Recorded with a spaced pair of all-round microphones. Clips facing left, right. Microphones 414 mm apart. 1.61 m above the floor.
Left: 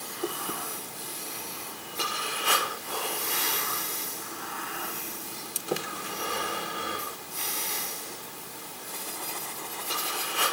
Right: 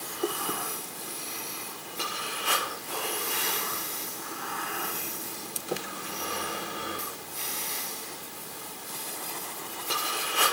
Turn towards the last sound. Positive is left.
No sound to turn to.